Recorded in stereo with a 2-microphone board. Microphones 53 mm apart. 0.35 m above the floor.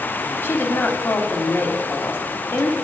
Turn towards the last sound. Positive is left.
turn(degrees=40)  # may be behind; listen again after turning